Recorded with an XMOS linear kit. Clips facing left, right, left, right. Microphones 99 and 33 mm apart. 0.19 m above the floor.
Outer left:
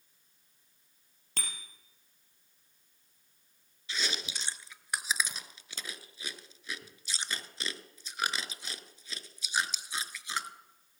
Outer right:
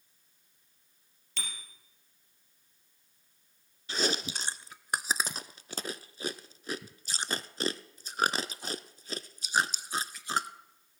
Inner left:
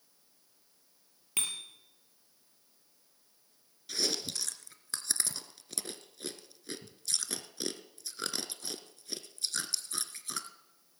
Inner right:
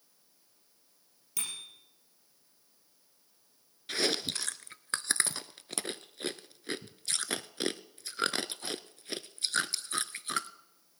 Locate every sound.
1.4 s a bicycle bell: 45° left (ahead or behind), 3 m
3.9 s chewing: 45° right (ahead or behind), 0.5 m